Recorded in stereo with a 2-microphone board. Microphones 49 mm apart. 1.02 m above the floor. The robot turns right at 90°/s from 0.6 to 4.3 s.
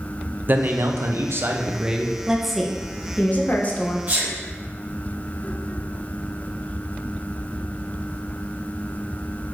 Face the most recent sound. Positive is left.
turn(degrees=-15)  # may be behind; listen again after turning